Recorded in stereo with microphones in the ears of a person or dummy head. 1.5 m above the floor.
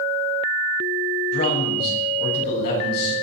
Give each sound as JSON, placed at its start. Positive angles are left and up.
{"t": 1.3, "sound": "a man speaking", "side_deg": 55, "distance_m": 7.0}